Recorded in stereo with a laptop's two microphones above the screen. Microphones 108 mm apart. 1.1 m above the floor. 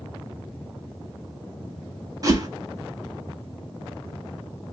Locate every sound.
2.2 s a whoosh: 35° right (ahead or behind), 1.0 m